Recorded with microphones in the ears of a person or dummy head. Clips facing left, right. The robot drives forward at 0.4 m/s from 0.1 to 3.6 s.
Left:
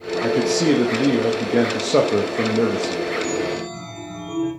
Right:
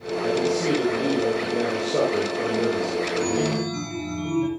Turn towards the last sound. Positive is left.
turn(degrees=-80)